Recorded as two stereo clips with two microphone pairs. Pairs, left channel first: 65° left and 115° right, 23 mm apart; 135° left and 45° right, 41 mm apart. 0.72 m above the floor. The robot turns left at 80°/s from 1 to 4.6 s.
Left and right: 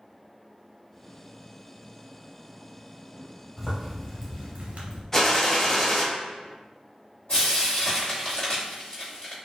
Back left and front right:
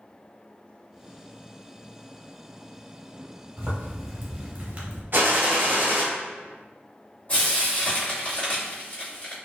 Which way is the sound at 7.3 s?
95° left.